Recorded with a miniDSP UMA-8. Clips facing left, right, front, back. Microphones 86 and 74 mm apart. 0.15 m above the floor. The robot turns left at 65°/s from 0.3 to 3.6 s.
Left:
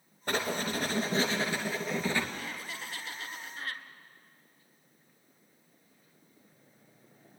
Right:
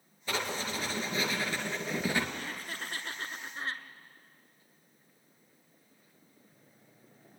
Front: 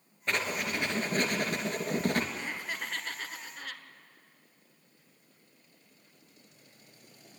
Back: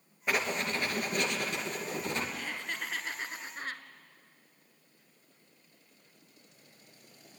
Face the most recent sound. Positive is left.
turn(degrees=-140)